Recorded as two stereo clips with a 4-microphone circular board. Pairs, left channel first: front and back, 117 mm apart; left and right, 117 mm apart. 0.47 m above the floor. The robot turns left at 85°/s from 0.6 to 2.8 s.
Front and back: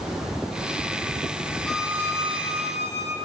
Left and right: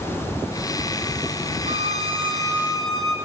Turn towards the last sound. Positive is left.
turn(degrees=180)